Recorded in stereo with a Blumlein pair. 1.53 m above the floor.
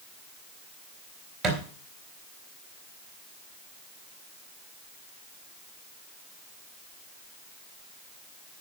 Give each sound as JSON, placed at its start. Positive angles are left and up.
{"t": 1.4, "sound": "a thud", "azimuth_deg": -10, "distance_m": 3.5}